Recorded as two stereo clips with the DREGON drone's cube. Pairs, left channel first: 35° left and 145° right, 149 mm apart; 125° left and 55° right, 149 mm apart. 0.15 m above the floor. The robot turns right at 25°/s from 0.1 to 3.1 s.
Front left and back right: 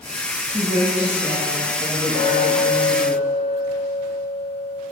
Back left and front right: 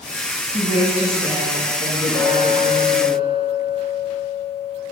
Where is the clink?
60° left, 2.5 m; by 4.8 s 85° left, 2.5 m.